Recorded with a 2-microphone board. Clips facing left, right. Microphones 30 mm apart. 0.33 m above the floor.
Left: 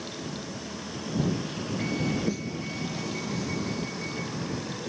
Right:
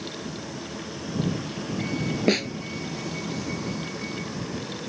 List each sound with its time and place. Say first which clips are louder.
2.3 s a snare drum: right 8 dB; 70° right (ahead or behind)